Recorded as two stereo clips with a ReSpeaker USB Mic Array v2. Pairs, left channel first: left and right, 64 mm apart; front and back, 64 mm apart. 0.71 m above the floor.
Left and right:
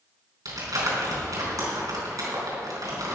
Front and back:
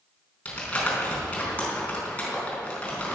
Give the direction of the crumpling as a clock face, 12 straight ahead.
2 o'clock.